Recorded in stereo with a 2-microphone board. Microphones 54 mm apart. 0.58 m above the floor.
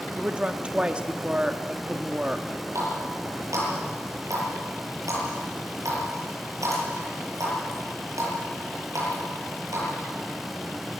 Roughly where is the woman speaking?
Right.